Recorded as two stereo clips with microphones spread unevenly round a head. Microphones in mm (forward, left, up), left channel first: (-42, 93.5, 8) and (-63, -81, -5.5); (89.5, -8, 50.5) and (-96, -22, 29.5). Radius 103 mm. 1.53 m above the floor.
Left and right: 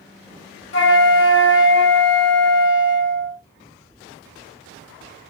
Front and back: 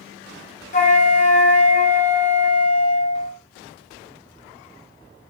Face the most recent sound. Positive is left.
turn(degrees=55)